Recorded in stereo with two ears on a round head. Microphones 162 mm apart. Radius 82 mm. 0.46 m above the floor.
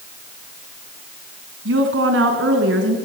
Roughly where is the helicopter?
I don't hear a helicopter.